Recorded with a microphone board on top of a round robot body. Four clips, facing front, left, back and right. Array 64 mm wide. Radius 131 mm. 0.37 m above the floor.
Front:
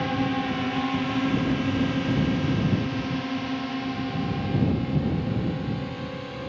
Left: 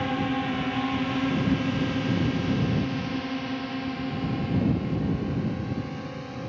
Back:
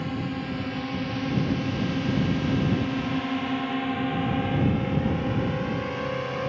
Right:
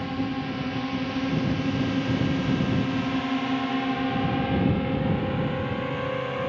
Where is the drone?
45° left; by 6.5 s 125° right.